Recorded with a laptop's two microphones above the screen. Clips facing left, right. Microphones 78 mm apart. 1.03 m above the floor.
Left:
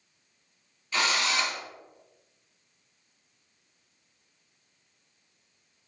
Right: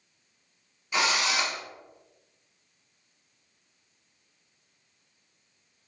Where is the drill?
15° right (ahead or behind), 0.8 m.